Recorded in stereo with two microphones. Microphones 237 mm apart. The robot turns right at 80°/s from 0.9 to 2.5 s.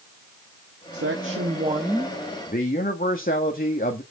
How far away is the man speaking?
About 1.5 m.